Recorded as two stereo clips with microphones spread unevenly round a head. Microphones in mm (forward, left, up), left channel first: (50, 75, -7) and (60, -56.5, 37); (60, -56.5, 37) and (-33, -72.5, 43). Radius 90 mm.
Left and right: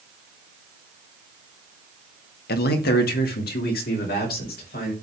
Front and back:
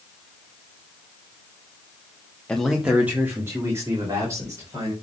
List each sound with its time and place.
2.5 s a man speaking: 95° left, 1.1 m; by 4.9 s 120° left, 4.5 m